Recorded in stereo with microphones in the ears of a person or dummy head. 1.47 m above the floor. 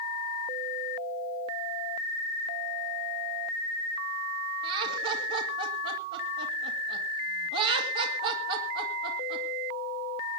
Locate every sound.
4.6 s laughter: 85° right, 3 m